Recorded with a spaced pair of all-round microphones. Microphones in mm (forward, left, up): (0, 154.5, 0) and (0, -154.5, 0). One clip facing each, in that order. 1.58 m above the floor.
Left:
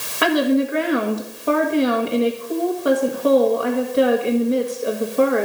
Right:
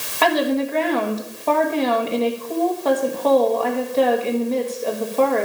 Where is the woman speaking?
15° left (ahead or behind), 1.7 m.